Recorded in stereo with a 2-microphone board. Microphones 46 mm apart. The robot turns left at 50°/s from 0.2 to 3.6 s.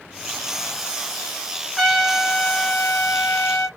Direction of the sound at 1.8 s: Straight behind.